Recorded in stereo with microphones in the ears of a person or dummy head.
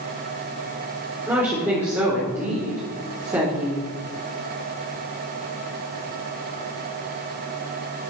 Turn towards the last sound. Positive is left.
turn(degrees=-10)  # may be behind; listen again after turning